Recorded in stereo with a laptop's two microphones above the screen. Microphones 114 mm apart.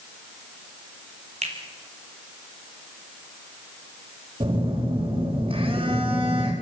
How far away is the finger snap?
About 3.5 m.